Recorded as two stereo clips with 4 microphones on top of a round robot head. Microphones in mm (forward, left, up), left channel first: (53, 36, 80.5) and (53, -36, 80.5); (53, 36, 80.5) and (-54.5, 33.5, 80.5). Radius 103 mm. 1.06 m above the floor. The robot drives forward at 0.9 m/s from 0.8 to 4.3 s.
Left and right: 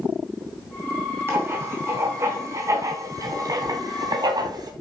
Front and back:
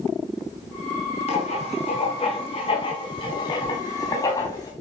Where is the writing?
35° right, 5.5 m; by 4.7 s 60° right, 3.5 m.